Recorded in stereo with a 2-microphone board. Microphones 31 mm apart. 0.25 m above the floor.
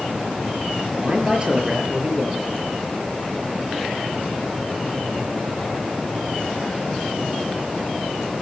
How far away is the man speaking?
About 5.5 m.